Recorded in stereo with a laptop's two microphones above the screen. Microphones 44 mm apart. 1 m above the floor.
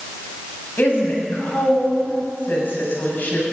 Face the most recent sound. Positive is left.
turn(degrees=45)  # may be behind; listen again after turning